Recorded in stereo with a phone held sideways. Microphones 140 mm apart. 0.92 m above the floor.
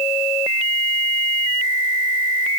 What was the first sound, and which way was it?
Only background noise.